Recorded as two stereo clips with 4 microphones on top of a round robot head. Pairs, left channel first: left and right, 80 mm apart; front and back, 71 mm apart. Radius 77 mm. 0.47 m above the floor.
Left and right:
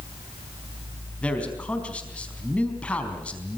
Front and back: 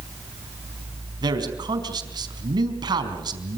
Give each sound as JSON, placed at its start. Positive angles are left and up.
{"t": 1.2, "sound": "a man speaking", "azimuth_deg": 165, "distance_m": 4.5}